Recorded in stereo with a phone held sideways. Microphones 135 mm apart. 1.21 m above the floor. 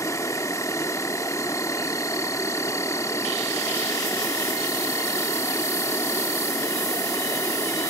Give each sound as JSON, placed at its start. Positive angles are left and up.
{"t": 0.0, "sound": "an insect", "side_deg": 20}